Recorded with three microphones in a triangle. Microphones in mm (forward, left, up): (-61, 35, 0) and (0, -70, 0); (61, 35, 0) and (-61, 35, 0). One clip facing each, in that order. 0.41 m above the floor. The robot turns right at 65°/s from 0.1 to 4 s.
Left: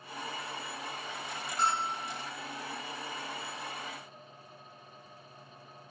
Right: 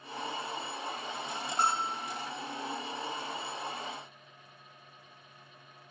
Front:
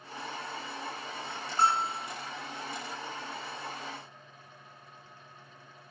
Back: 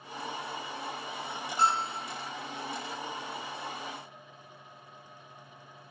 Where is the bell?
35° right, 0.8 m; by 2.0 s 5° right, 0.8 m.